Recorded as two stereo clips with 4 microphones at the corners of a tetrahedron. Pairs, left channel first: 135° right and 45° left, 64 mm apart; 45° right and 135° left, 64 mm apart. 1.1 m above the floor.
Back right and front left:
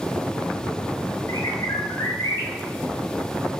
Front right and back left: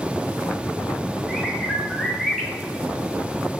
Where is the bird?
130° right, 1.2 m.